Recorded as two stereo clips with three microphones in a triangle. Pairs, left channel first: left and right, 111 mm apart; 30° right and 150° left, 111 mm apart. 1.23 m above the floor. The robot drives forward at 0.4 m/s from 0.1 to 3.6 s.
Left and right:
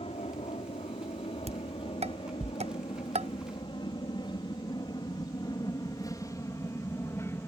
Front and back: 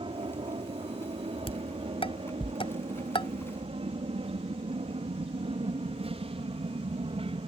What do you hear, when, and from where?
0.0 s an aircraft: 115° left; by 7.5 s 155° left
1.5 s dishes clattering: 65° right; by 3.3 s 75° right